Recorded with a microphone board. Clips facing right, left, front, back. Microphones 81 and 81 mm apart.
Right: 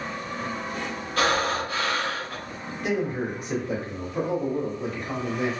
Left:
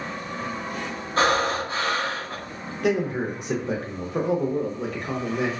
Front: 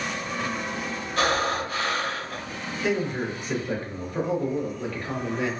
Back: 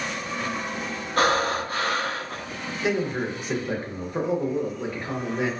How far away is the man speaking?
About 0.7 m.